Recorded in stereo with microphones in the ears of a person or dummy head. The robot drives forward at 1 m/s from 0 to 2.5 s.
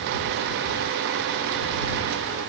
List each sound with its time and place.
Only background noise.